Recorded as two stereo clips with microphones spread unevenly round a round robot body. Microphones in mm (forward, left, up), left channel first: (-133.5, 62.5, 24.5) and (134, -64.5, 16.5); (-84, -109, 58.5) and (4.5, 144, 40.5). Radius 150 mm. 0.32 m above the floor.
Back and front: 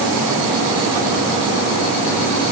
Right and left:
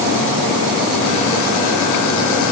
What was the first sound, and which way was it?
Only background noise.